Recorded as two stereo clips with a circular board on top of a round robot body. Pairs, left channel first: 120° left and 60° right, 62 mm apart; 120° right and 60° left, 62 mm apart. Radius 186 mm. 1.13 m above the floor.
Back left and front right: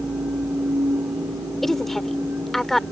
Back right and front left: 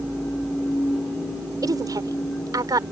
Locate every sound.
1.6 s a woman speaking: 35° left